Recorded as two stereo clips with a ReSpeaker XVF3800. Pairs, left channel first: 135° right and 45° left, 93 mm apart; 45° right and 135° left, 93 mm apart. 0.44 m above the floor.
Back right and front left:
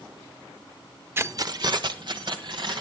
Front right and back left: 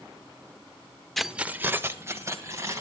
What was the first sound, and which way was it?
Keys jangling, 40° left.